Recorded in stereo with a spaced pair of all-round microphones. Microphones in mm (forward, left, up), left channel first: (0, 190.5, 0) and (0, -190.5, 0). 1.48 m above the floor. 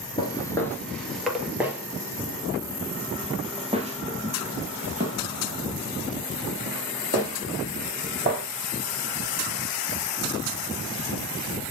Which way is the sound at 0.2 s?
10° left (ahead or behind).